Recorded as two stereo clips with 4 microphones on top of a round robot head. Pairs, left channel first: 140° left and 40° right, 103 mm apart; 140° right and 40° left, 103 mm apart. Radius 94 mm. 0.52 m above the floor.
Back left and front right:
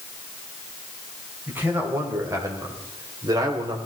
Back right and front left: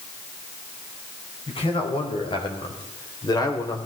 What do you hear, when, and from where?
1.5 s a man speaking: 110° right, 3 m; by 3.8 s 85° right, 2.5 m